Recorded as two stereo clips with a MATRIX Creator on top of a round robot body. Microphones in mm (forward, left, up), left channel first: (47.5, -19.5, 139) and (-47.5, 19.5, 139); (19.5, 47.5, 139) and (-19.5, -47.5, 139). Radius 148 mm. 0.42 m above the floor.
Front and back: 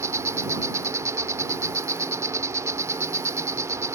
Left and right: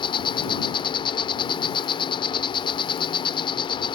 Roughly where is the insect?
Left.